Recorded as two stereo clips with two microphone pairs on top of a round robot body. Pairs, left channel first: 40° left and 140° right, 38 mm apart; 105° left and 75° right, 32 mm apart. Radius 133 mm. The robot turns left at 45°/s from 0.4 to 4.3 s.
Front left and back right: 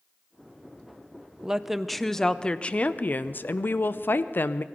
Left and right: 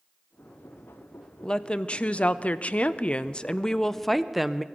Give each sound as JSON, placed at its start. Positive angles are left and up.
{"t": 1.4, "sound": "a woman speaking", "azimuth_deg": 150, "distance_m": 0.6}